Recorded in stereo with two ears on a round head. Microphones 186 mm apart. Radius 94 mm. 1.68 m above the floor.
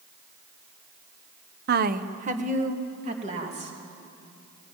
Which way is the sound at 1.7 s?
45° right (ahead or behind).